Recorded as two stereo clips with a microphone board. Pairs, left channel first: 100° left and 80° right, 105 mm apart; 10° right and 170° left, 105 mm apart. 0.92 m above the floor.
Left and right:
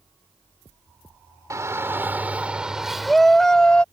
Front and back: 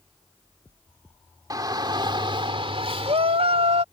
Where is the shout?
135° right; by 3.8 s straight behind.